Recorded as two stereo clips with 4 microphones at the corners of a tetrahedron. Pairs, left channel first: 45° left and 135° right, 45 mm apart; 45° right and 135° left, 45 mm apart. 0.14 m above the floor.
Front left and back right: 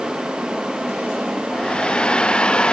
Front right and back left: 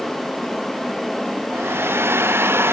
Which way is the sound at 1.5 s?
115° left.